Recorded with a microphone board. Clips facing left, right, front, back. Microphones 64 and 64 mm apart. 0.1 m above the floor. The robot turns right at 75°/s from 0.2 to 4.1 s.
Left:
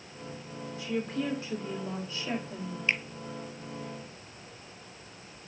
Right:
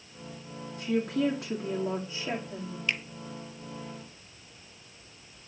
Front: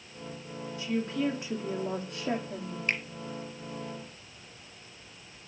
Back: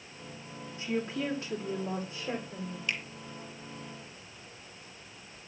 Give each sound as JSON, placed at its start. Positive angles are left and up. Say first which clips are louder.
{"t": 0.8, "sound": "a woman speaking", "louder": "right 5 dB, front 2 dB", "azimuth_deg": -120, "distance_m": 6.0}
{"t": 2.9, "sound": "a finger snap", "louder": "left 2 dB, front 4 dB", "azimuth_deg": 30, "distance_m": 1.4}